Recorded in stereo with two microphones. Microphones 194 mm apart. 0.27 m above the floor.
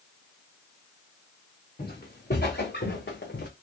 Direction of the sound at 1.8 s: 55° left (ahead or behind).